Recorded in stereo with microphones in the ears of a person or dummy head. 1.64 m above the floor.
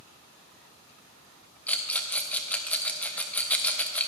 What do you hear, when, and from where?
1.7 s a rattle: 10° left (ahead or behind), 0.6 m